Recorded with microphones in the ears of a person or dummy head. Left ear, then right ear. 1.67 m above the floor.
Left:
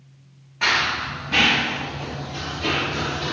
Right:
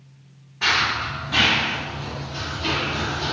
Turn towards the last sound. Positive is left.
turn(degrees=30)  # may be behind; listen again after turning